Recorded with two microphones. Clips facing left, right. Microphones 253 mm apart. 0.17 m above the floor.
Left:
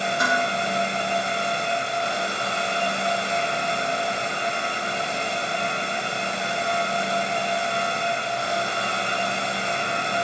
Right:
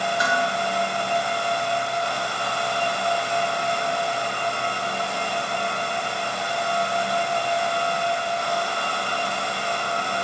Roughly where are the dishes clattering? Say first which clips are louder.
Left 1 dB; left.